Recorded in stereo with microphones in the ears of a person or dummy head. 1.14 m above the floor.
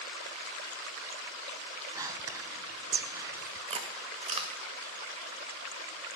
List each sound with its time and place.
1.9 s whispering: 20° right (ahead or behind), 0.5 m
3.7 s chewing: 30° right (ahead or behind), 1.0 m